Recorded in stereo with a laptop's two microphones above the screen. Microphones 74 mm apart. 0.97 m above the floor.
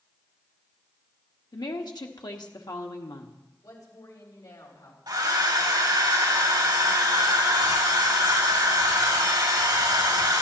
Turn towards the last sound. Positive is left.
turn(degrees=-70)  # may be behind; listen again after turning